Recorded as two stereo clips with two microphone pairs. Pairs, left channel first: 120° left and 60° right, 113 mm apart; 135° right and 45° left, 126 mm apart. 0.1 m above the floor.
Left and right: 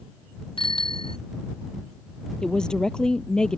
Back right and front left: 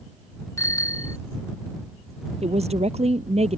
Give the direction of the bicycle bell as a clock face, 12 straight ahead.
7 o'clock.